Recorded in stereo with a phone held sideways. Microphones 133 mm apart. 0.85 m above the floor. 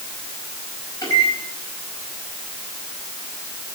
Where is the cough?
No cough in this recording.